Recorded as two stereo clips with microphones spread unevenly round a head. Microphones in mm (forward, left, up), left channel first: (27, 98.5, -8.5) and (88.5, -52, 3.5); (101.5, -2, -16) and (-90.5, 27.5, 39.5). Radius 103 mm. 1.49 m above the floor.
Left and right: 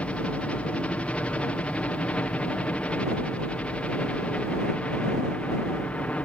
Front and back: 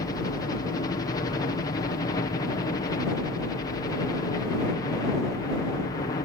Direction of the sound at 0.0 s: 35° left.